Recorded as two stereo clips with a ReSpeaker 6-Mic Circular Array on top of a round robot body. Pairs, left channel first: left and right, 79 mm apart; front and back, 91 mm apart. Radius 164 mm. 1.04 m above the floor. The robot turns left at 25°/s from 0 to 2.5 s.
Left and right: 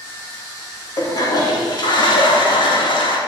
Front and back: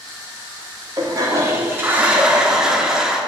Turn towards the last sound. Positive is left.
turn(degrees=95)